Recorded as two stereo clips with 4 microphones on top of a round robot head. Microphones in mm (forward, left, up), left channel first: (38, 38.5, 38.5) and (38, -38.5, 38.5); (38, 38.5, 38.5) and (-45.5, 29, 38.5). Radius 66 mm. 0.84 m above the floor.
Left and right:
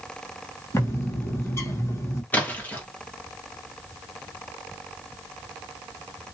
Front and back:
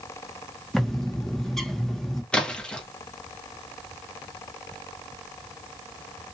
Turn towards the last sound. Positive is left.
turn(degrees=65)